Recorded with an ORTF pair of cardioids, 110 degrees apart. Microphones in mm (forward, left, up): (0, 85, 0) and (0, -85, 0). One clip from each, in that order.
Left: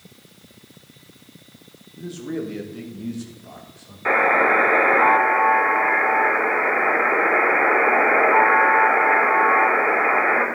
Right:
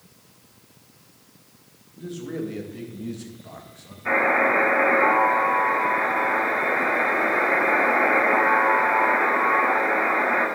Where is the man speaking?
20° left, 1.8 m; by 4.0 s 5° right, 2 m.